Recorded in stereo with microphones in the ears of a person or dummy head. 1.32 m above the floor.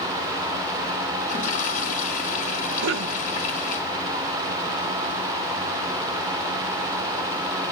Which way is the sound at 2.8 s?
65° right (ahead or behind).